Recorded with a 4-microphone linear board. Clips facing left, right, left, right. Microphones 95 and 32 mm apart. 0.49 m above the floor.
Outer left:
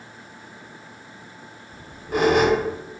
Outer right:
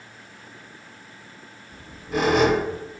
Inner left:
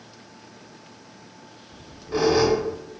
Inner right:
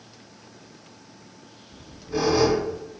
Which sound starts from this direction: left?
A squeak, at 1.7 s.